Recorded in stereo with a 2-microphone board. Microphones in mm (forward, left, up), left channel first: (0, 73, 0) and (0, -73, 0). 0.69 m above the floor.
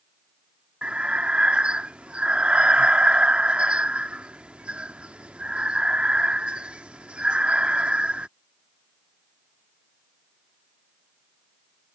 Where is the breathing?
10° right (ahead or behind).